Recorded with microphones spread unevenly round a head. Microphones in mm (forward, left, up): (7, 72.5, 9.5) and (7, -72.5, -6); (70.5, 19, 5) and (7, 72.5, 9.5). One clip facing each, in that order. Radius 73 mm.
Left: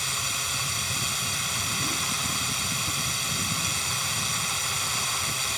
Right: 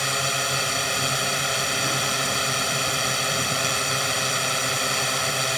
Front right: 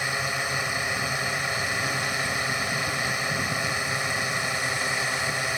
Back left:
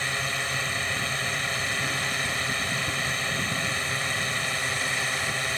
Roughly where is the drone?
Behind right.